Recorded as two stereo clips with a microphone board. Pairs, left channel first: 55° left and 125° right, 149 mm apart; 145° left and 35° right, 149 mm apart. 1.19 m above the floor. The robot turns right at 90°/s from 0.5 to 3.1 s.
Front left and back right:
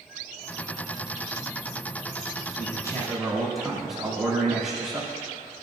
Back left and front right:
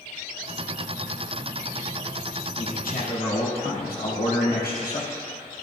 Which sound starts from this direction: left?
A man speaking, at 2.6 s.